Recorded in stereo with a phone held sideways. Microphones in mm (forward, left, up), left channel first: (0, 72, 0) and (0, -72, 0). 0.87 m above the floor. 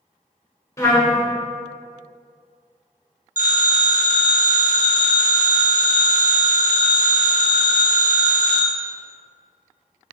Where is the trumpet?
20° left (ahead or behind), 0.7 m.